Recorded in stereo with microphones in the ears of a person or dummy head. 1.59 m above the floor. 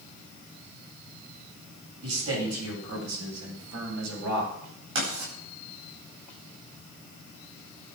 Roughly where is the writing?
Right.